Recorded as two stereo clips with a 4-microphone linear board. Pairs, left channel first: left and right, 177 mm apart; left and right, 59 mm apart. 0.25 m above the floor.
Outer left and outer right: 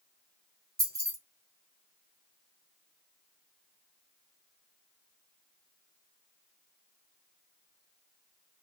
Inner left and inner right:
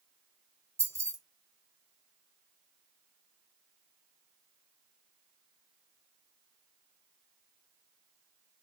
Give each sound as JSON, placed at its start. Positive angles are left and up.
{"t": 0.8, "sound": "keys jangling", "side_deg": -60, "distance_m": 1.8}